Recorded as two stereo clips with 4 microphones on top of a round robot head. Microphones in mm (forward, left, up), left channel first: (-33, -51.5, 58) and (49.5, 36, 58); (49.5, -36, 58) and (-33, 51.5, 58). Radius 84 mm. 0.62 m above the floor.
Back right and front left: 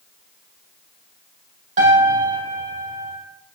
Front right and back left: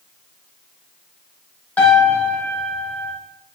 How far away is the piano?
About 5 m.